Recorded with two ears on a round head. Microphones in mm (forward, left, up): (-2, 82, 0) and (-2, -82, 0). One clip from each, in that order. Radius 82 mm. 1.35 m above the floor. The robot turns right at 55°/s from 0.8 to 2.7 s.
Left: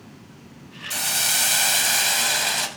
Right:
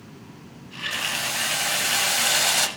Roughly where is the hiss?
Left.